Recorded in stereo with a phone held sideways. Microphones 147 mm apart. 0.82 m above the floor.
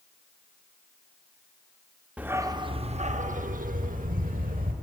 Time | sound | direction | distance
2.2 | a dog barking | 10° right (ahead or behind) | 0.6 m